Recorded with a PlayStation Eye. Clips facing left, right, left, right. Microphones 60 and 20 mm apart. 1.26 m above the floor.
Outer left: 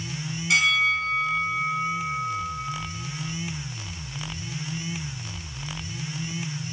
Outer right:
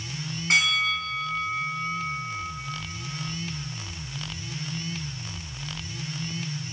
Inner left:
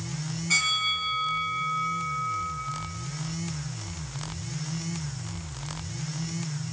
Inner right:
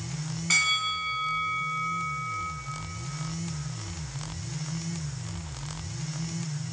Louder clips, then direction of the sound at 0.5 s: Outer left 2 dB, even; 45° right (ahead or behind).